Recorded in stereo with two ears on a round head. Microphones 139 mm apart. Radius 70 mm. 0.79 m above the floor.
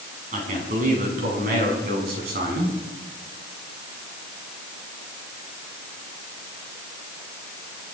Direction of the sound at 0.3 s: 50° right (ahead or behind).